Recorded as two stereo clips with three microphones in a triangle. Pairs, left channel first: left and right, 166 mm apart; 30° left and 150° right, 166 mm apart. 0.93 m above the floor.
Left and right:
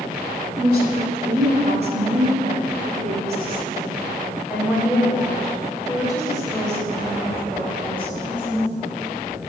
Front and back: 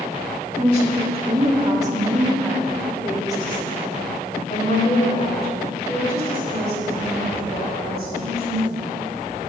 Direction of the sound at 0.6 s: 105° right.